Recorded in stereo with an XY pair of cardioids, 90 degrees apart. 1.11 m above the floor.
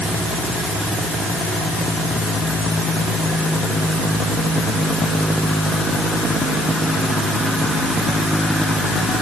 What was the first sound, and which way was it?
Only background noise.